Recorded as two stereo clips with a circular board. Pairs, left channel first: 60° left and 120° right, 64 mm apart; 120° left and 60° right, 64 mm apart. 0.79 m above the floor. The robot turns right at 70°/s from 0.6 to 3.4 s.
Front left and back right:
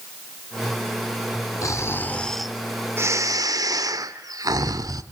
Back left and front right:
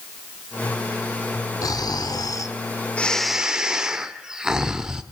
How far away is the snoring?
About 1.4 m.